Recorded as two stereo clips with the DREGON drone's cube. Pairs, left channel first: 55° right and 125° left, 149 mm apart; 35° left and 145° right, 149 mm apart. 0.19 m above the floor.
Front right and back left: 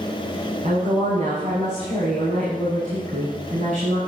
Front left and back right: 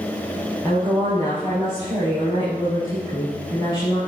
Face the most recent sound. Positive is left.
turn(degrees=90)